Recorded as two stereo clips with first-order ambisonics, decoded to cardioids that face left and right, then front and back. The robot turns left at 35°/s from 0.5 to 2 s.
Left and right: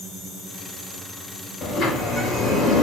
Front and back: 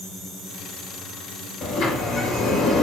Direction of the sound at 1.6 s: 40° left.